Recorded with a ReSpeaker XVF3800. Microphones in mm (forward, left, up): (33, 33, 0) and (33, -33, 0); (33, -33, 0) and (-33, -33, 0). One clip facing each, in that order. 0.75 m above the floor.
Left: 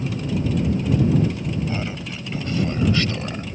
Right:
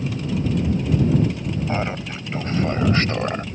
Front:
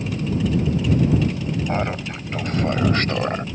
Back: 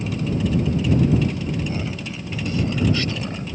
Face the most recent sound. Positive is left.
turn(degrees=-40)